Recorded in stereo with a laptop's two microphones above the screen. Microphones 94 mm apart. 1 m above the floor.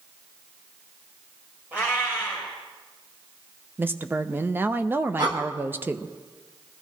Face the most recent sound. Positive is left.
turn(degrees=-45)  # may be behind; listen again after turning